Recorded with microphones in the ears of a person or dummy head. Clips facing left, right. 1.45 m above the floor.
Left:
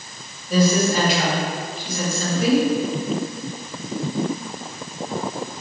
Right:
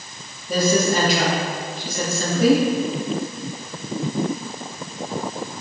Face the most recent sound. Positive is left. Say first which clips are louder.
# left 1 dB
turn(degrees=-40)  # may be behind; listen again after turning